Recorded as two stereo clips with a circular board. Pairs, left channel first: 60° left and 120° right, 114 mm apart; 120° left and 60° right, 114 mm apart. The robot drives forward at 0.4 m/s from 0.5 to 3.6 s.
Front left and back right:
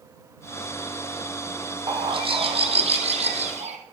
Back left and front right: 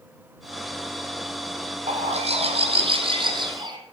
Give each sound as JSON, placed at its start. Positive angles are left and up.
{"t": 1.9, "sound": "a bird", "azimuth_deg": -75, "distance_m": 1.2}